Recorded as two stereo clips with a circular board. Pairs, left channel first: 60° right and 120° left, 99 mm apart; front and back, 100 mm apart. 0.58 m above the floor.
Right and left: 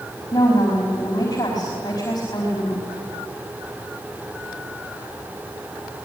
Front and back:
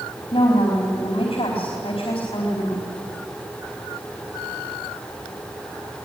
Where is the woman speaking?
10° right, 4.5 m.